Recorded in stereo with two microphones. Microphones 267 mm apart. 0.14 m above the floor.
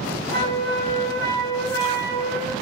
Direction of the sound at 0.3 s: 15° left (ahead or behind).